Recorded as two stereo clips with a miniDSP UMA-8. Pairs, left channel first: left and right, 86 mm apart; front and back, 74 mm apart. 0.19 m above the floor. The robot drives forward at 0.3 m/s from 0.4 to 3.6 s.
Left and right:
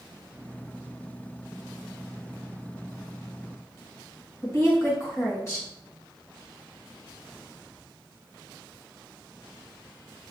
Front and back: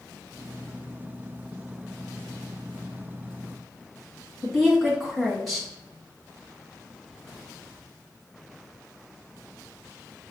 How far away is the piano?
I don't hear a piano.